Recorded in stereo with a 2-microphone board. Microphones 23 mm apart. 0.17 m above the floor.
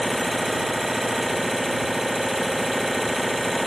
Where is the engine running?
15° right (ahead or behind).